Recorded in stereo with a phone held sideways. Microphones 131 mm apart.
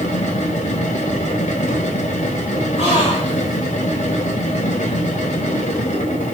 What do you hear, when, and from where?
0.0 s a machine running: 85° left, 2.5 m
2.8 s a gasp: 65° left (ahead or behind), 7 m